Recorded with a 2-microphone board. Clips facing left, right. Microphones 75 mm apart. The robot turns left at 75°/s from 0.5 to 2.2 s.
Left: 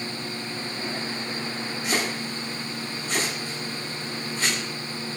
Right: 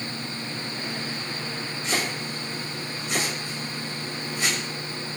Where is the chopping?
10° left (ahead or behind), 2.5 m; by 4.6 s 15° right (ahead or behind), 2.5 m.